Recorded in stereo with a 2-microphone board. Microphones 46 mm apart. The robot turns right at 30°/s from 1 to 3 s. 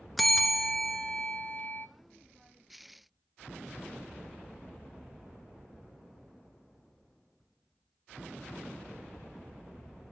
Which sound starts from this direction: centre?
A bell, at 0.2 s.